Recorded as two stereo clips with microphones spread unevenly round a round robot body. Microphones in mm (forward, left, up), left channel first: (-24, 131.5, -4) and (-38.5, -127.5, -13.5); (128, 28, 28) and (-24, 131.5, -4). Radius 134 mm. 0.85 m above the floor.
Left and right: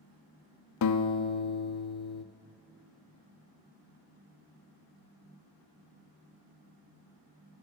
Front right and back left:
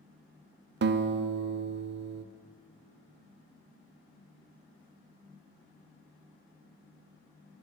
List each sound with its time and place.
0.8 s a guitar: 115° left, 0.5 m